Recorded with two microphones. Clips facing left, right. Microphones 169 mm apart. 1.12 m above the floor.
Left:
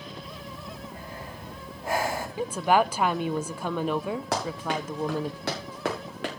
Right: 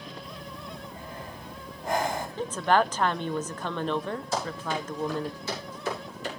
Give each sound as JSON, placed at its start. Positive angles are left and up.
{"t": 0.2, "sound": "breathing", "side_deg": 10, "distance_m": 5.0}
{"t": 2.4, "sound": "a woman speaking", "side_deg": 10, "distance_m": 0.5}
{"t": 4.3, "sound": "running footsteps", "side_deg": 80, "distance_m": 8.0}